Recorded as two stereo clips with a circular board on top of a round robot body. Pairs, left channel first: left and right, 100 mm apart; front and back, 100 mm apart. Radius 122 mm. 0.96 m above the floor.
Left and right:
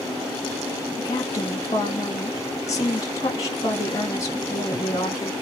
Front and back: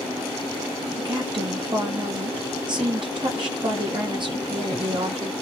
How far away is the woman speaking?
About 1.8 m.